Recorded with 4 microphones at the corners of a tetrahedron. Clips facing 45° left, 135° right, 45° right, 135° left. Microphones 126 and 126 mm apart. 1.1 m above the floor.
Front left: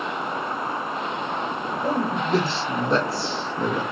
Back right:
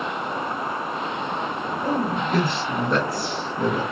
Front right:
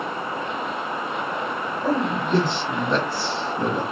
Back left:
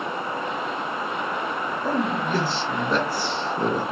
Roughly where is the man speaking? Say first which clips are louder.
Even, front right 2 dB; ahead.